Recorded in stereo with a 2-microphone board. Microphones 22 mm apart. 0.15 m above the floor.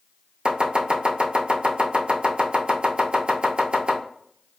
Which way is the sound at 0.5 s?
50° right (ahead or behind).